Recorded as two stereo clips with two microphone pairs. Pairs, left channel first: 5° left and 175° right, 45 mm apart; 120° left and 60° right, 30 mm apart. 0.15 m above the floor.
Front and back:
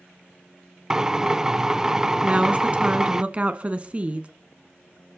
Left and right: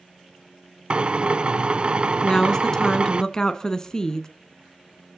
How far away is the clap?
No clap in this recording.